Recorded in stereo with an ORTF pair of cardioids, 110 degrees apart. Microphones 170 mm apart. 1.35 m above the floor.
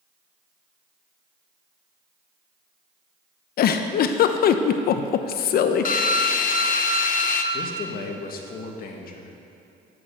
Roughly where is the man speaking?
Ahead left.